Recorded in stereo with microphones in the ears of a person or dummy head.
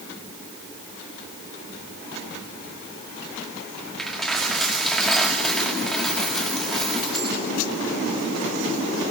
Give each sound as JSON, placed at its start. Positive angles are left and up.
{"t": 4.0, "sound": "a dropped coin", "side_deg": 0, "distance_m": 1.9}